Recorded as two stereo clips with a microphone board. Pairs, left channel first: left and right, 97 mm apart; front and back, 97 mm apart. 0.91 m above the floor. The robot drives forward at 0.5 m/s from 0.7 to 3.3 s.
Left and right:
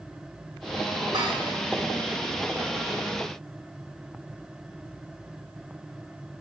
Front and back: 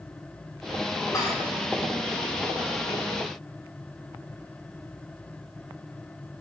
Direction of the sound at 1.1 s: 60° right.